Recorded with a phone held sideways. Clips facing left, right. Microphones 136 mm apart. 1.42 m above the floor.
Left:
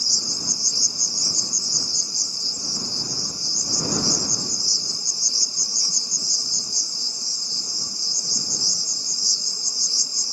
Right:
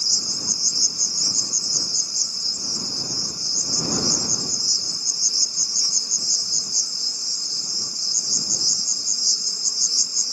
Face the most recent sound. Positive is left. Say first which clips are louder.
# left 1 dB
turn(degrees=25)  # may be behind; listen again after turning